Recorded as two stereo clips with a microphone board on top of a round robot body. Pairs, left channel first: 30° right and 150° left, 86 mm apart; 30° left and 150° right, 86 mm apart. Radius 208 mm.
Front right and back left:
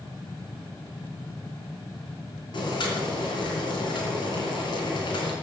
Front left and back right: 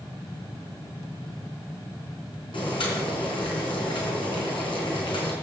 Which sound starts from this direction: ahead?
Boiling, at 2.5 s.